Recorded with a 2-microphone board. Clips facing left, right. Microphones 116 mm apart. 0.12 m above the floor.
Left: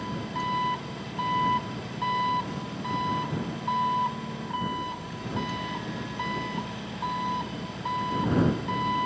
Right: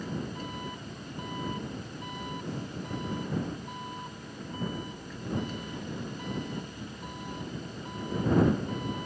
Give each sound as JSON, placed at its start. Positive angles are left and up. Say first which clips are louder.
{"t": 0.0, "sound": "an engine running", "louder": "left 5 dB", "side_deg": 80}